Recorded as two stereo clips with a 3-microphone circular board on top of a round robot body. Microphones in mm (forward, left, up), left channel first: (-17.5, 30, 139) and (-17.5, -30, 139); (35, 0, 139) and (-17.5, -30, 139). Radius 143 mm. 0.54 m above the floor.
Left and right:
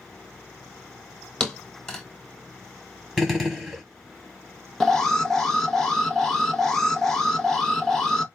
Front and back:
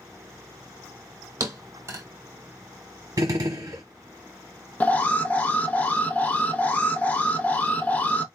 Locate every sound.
1.4 s a thud: 170° left, 0.9 m
3.2 s a gunshot: straight behind, 0.9 m
4.8 s an alarm: 15° left, 1.0 m